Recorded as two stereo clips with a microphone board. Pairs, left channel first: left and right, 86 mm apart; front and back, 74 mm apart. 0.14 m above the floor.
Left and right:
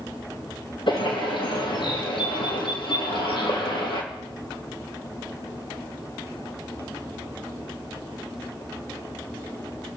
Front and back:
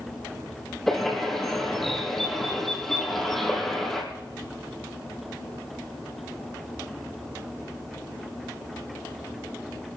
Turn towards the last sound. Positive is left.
turn(degrees=85)